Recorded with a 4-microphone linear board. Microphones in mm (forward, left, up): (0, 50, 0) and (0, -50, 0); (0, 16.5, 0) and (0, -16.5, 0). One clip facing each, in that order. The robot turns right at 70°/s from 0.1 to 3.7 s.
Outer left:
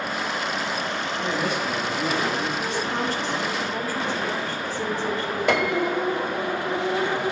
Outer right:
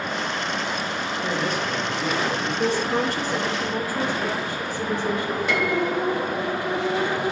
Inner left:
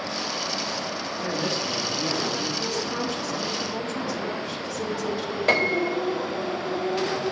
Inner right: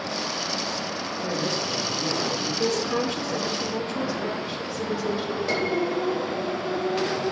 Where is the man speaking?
45° left, 6 m; by 2.5 s 130° left, 6 m.